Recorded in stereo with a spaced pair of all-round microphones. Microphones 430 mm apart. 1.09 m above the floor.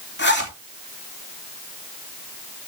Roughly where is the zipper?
Left.